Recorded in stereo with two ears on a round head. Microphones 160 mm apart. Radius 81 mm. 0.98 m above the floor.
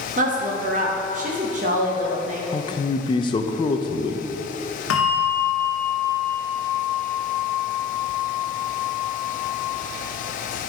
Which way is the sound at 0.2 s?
40° right (ahead or behind).